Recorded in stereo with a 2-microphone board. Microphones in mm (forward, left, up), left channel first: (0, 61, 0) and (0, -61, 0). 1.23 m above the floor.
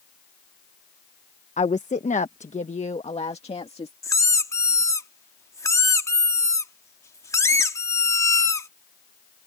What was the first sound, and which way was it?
A woman speaking, 75° left (ahead or behind).